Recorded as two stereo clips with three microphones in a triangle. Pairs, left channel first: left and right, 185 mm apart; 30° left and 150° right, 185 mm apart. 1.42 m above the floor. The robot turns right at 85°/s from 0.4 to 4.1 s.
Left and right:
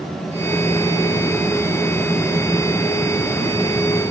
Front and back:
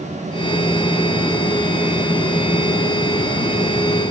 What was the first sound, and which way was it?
Only background noise.